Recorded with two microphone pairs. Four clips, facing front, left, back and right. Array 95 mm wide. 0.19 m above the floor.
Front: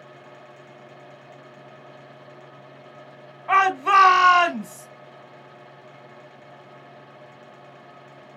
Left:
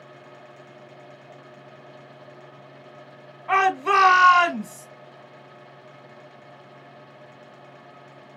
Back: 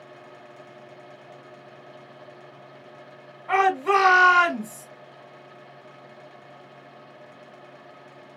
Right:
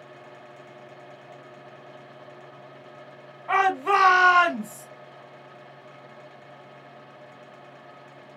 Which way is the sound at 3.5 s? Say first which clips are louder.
Left 2 dB, front 2 dB; 10° left.